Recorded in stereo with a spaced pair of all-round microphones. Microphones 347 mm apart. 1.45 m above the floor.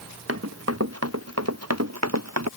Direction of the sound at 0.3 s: 40° right (ahead or behind).